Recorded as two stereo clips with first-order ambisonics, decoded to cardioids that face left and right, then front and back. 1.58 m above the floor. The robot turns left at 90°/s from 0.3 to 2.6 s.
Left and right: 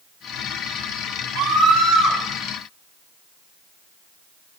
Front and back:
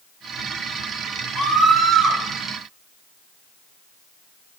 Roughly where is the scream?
Ahead right.